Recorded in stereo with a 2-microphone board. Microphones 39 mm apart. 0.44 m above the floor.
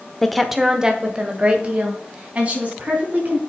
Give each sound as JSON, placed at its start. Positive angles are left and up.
{"t": 0.2, "sound": "a woman speaking", "side_deg": 10, "distance_m": 0.9}